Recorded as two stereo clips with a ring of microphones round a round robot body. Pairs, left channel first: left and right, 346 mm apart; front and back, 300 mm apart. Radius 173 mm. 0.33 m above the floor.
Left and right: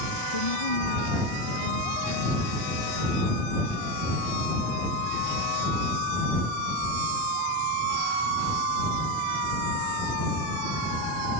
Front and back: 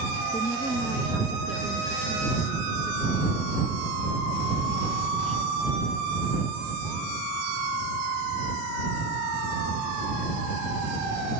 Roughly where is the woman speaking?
Left.